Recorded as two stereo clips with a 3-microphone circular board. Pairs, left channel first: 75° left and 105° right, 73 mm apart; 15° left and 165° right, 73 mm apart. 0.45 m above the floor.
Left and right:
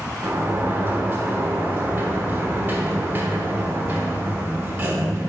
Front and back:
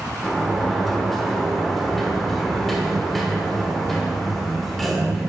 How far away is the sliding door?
About 1.3 m.